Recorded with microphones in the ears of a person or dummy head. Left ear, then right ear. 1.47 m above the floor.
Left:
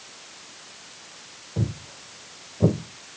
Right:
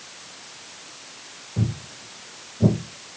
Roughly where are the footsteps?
Left.